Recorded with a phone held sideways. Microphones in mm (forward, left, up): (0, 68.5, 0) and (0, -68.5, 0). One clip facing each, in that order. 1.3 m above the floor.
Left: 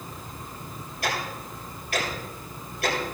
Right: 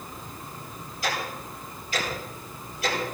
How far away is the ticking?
About 7.5 m.